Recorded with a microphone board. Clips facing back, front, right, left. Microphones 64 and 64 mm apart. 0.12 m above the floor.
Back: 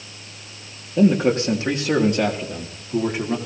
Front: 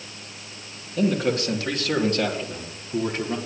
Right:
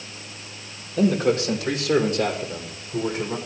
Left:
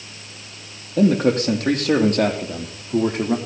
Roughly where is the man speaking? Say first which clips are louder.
Back 5 dB, left 3 dB; behind left.